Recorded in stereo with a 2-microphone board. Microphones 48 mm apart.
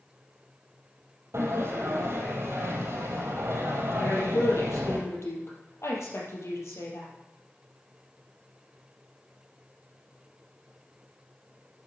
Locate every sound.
1.3 s a sliding door: 65° right (ahead or behind), 4 m
4.0 s a woman speaking: 75° left (ahead or behind), 4.5 m